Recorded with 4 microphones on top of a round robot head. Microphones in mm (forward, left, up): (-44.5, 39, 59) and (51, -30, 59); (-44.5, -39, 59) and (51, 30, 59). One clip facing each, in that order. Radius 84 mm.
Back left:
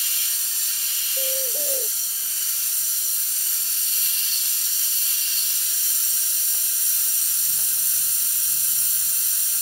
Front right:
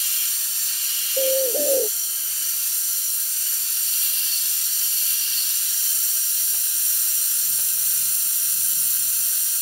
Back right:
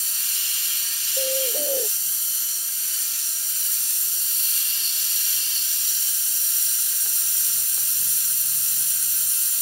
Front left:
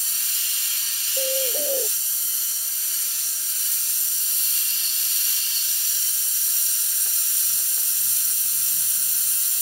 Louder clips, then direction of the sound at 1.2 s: Front right 11 dB, even; 55° right.